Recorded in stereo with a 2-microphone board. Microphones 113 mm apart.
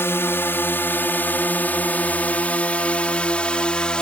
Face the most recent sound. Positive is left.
turn(degrees=10)  # may be behind; listen again after turning